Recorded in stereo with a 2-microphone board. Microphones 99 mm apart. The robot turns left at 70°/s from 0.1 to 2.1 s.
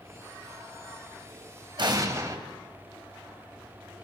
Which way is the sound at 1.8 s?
55° right (ahead or behind).